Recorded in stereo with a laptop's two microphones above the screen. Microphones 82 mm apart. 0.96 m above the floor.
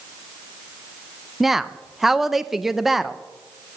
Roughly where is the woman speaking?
Centre.